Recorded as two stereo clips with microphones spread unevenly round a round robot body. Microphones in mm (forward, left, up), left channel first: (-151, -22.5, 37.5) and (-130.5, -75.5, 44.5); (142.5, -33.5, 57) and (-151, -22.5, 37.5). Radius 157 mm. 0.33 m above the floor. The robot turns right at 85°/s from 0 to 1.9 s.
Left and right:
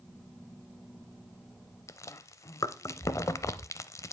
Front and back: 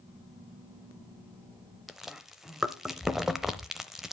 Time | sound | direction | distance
1.9 | chewing | 90° left | 0.6 m